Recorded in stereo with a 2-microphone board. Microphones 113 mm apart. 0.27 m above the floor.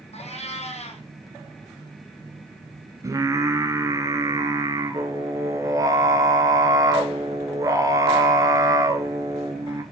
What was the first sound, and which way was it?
A cat meowing, 70° left (ahead or behind).